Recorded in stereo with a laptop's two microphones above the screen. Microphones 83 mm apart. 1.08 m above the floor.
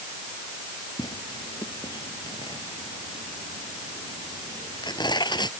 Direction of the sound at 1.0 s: 60° left (ahead or behind).